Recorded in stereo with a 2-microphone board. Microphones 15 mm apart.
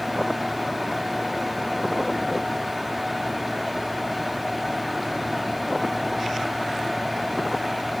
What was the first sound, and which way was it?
Only background noise.